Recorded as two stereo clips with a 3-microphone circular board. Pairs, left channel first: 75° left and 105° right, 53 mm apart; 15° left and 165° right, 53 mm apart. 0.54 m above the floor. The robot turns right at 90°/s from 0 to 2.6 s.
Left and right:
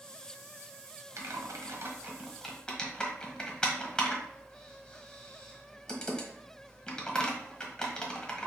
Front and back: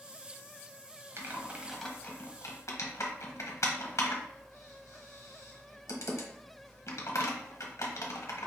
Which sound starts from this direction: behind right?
Typing on a keyboard, at 1.2 s.